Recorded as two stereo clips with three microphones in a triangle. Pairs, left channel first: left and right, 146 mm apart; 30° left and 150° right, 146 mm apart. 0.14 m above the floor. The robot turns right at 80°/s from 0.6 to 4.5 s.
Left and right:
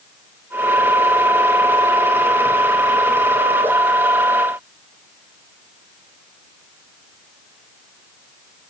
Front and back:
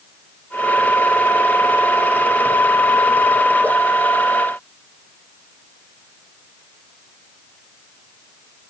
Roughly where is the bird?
No bird in this recording.